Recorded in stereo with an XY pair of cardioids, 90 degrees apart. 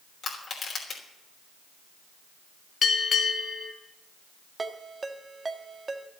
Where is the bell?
65° left, 1.9 m.